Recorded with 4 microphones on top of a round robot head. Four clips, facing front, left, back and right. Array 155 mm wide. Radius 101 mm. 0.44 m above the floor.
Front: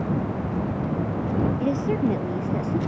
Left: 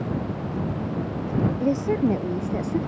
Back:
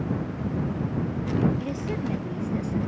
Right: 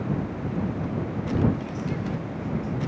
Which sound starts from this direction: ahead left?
A woman speaking, at 1.6 s.